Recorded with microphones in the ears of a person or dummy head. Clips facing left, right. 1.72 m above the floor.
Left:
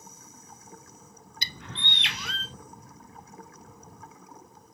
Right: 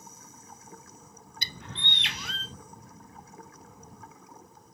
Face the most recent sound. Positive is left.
turn(degrees=60)  # may be behind; listen again after turning